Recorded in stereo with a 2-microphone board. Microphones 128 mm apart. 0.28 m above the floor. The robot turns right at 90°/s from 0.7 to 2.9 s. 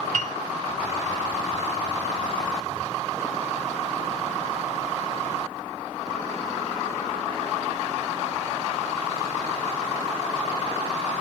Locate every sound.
0.1 s a piano: 70° right (ahead or behind), 0.8 m